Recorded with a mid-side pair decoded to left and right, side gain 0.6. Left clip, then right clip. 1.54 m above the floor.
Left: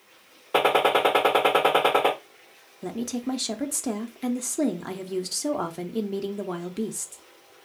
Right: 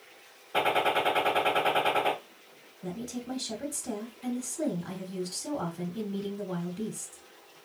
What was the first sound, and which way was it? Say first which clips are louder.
A gunshot: left 6 dB; 65° left.